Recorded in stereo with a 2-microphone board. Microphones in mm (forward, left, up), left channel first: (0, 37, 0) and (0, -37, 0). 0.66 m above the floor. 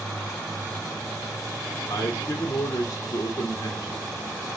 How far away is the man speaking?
About 1.0 m.